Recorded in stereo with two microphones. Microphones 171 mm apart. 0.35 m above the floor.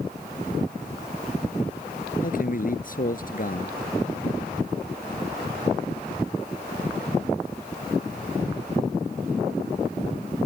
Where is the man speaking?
55° left (ahead or behind).